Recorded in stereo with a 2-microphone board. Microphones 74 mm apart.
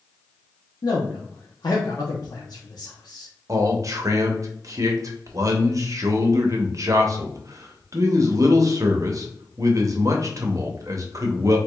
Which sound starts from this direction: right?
A man speaking, at 3.5 s.